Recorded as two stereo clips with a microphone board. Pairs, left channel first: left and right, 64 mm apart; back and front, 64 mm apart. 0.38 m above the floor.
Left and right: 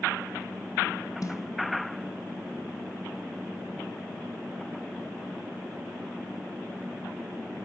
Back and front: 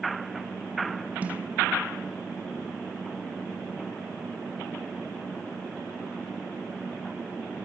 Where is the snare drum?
65° left, 1.2 m.